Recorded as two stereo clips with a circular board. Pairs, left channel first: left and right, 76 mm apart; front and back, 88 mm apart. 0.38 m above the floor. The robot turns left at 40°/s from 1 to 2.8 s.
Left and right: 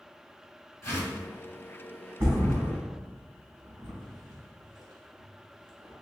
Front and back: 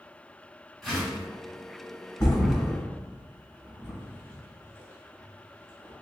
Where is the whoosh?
90° left, 1.7 m; by 1.3 s 80° left, 1.7 m.